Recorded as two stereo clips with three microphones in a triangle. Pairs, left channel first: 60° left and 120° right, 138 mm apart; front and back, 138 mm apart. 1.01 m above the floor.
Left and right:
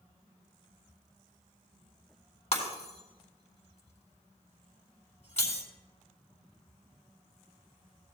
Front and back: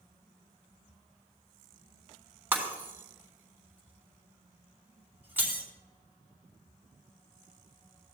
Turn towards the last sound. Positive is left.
turn(degrees=105)